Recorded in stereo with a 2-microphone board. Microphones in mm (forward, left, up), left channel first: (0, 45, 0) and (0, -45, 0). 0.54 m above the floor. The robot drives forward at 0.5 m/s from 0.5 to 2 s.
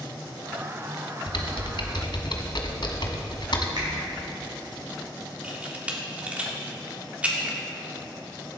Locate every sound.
1.3 s typing on a keyboard: 80° left, 1.1 m; by 3.7 s 65° left (ahead or behind), 1.2 m
3.8 s a finger snap: 65° right (ahead or behind), 4 m
5.4 s a camera shutter: 15° right (ahead or behind), 1.5 m